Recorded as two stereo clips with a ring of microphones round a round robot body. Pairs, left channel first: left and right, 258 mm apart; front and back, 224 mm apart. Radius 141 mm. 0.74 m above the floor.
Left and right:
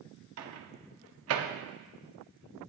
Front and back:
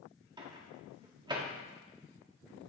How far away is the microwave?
About 1.5 m.